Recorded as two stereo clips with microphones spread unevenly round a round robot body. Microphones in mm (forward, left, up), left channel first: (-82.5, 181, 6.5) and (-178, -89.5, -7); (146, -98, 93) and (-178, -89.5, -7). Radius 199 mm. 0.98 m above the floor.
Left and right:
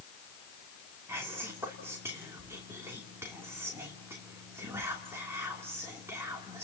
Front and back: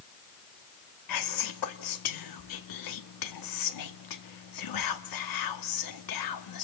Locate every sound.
1.1 s whispering: 25° right, 2.5 m